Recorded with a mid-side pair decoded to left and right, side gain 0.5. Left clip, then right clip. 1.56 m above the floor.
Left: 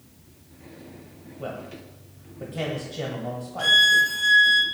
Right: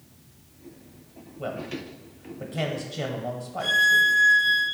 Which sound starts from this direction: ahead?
A man speaking, at 1.4 s.